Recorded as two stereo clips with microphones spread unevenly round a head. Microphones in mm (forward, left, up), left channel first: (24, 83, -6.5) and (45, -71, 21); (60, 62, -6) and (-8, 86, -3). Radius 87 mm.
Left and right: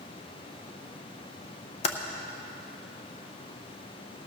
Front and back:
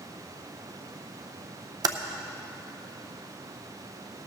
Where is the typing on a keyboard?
155° left, 0.6 m.